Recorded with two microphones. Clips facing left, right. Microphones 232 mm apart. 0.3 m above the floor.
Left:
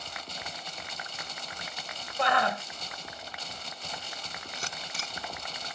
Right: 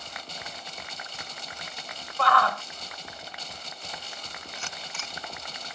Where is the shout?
20° left (ahead or behind).